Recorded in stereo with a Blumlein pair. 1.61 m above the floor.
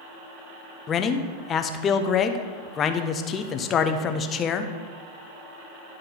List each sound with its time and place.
0.9 s a man speaking: 25° left, 0.6 m